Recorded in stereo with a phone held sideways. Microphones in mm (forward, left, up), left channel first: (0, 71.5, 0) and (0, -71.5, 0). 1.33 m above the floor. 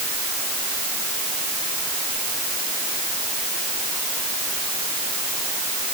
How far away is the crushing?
I don't hear crushing.